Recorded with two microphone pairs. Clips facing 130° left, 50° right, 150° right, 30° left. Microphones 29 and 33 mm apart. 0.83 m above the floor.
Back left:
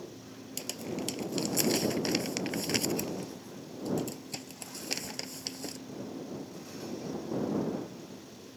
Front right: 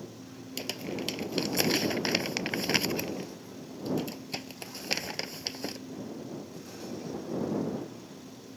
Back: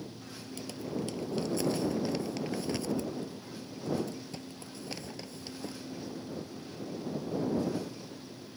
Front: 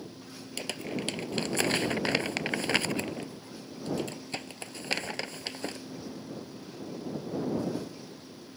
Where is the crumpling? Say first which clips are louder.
Front right 2 dB, front 2 dB; 10° left.